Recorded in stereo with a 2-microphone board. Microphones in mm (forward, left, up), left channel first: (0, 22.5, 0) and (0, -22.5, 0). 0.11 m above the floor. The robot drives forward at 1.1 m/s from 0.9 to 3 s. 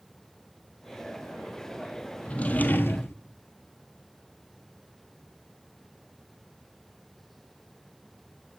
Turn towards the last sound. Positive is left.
turn(degrees=55)  # may be behind; listen again after turning